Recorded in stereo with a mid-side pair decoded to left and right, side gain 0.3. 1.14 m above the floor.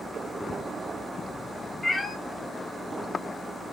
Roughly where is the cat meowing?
Ahead left.